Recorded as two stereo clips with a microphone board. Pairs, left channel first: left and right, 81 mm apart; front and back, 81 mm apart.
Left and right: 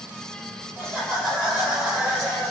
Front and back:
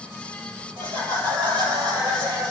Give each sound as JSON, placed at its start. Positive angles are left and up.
{"t": 0.8, "sound": "laughter", "azimuth_deg": -160, "distance_m": 4.5}